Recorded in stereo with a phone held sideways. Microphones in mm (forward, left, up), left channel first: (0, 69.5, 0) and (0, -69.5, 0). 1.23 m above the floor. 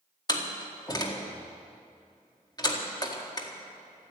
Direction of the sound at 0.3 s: 30° left (ahead or behind).